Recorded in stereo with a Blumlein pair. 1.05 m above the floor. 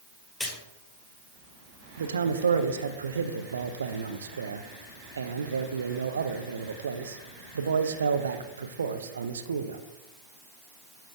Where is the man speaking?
70° right, 0.6 m.